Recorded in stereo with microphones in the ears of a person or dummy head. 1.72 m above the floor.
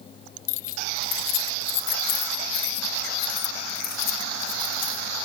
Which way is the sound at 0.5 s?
45° left (ahead or behind).